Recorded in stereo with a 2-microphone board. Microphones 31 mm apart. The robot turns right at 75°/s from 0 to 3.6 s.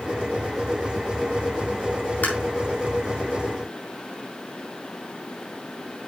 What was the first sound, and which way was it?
Tapping, 75° left (ahead or behind).